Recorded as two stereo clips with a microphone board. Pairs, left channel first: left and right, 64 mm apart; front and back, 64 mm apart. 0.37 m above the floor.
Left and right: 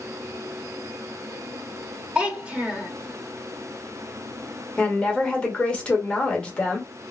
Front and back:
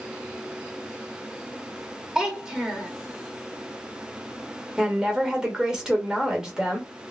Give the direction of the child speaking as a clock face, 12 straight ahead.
4 o'clock.